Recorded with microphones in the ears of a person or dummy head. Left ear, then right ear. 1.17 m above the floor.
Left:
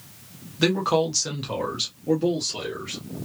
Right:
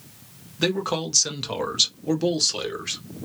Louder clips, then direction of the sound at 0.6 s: Left 3 dB; centre (ahead or behind).